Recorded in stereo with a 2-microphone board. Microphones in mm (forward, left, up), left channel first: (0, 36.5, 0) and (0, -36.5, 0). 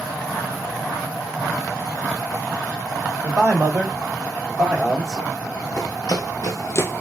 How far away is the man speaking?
About 1.9 m.